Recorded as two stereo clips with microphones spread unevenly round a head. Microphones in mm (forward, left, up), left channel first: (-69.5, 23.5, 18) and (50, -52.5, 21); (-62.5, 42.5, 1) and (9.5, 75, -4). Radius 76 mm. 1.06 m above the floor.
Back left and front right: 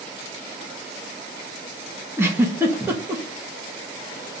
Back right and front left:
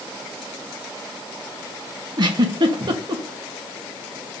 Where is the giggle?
40° left, 1.5 m.